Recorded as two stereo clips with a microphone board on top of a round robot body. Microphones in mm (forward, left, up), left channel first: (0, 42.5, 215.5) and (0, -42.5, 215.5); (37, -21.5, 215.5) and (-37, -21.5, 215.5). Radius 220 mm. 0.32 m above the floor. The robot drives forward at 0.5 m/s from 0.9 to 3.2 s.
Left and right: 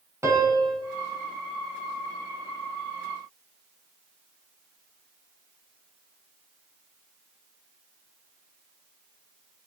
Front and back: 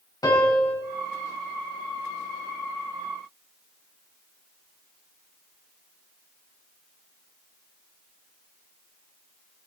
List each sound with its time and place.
0.2 s a piano: 30° right, 5.5 m